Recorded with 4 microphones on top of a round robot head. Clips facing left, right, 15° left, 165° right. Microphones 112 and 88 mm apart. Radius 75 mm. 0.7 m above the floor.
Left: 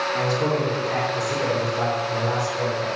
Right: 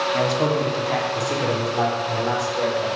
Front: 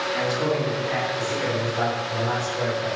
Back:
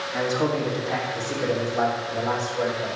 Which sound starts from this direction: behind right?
A man speaking, at 0.1 s.